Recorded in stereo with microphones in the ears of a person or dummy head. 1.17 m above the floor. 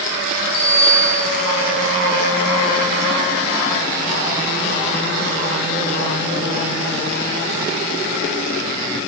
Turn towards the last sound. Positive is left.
turn(degrees=85)